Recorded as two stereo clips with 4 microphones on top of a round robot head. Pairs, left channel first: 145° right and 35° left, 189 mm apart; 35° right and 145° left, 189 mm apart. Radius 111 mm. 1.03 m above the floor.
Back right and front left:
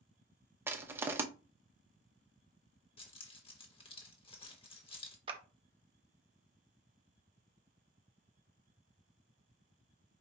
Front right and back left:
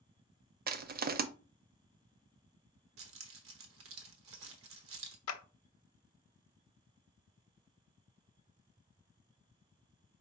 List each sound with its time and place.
0.7 s crushing: 115° left, 0.6 m
3.0 s keys jangling: 155° left, 1.0 m
5.3 s a clap: 30° right, 0.6 m